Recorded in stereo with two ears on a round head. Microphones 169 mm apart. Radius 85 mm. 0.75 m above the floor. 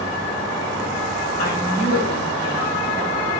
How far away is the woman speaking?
About 3.5 m.